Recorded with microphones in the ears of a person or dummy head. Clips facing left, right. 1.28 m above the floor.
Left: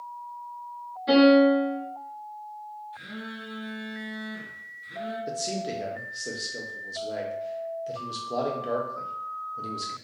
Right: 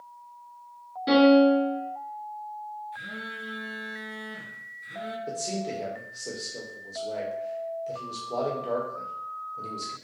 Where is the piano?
70° right (ahead or behind), 2.0 m.